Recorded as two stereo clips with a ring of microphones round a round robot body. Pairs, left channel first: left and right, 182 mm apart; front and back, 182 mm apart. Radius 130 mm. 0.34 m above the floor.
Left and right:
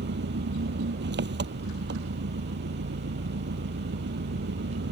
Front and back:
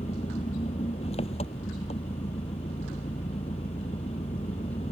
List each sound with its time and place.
0.0 s an engine running: 70° right